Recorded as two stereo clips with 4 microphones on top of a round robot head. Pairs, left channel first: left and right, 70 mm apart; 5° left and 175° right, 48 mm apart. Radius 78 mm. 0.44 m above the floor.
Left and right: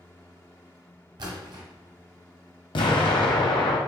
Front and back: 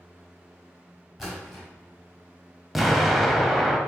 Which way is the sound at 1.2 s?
85° right.